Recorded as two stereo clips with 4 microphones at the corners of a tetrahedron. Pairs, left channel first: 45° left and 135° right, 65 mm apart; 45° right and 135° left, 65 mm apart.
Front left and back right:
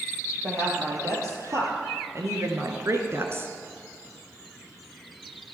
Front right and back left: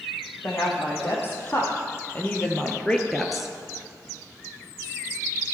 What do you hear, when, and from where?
0.4 s a woman speaking: 95° right, 4 m; by 3.5 s 150° right, 1.3 m